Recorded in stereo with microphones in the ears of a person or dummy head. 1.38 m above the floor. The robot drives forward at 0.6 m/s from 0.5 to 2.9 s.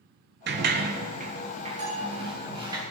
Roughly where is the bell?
Right.